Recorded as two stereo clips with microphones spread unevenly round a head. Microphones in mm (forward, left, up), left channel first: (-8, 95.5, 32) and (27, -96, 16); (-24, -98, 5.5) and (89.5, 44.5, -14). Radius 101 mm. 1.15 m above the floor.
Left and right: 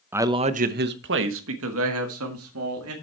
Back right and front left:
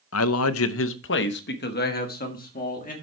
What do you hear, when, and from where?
0.1 s a man speaking: 160° right, 0.7 m; by 2.9 s 85° right, 2 m